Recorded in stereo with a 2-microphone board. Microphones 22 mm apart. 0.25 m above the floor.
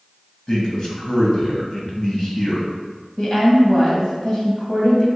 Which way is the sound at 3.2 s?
35° left (ahead or behind).